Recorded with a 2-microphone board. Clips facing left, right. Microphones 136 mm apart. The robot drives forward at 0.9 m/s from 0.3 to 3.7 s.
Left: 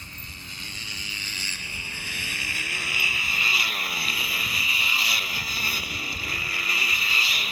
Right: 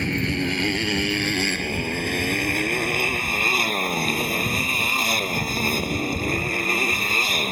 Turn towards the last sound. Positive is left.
turn(degrees=-45)  # may be behind; listen again after turning